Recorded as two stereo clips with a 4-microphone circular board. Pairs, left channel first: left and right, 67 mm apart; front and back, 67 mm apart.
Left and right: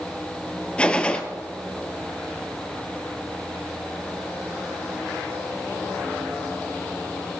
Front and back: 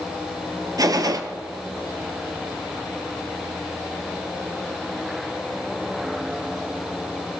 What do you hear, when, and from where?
0.8 s a gunshot: 165° left, 1.1 m